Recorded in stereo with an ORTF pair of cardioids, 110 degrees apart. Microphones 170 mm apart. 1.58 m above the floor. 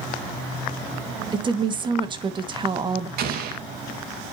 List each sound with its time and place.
1.3 s a woman speaking: 30° right, 1.9 m
3.2 s an explosion: 60° right, 2 m